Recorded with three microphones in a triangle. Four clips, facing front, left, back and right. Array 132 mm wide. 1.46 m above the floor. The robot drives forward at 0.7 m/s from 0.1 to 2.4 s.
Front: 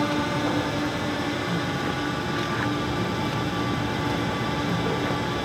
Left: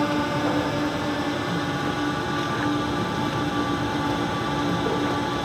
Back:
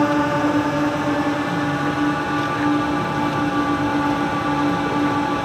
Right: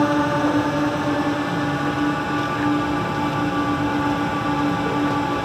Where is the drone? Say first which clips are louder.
Right 5 dB, back 7 dB; 145° right; by 5.5 s 155° right.